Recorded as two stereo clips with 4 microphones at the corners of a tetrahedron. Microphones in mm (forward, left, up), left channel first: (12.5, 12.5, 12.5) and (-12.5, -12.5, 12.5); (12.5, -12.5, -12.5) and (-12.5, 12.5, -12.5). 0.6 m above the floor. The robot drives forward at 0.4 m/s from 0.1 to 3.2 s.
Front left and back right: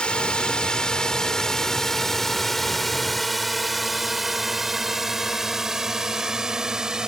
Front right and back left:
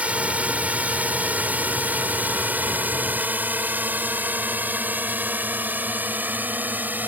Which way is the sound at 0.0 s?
100° left.